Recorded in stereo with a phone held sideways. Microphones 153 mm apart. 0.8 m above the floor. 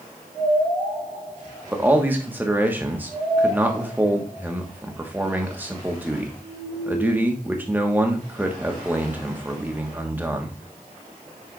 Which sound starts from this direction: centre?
A man speaking, at 1.7 s.